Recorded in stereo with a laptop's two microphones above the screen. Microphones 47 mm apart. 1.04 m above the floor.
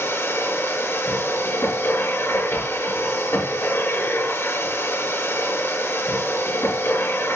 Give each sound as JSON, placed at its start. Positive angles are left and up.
{"t": 0.0, "sound": "a machine running", "side_deg": 55, "distance_m": 6.0}